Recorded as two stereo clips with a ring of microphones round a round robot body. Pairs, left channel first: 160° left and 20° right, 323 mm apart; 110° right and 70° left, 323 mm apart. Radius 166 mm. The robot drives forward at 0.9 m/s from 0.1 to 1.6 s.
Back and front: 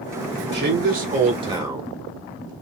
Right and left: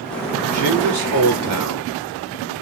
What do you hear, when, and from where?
0.5 s a man speaking: 30° left, 2.5 m; by 2.5 s 55° left, 1.7 m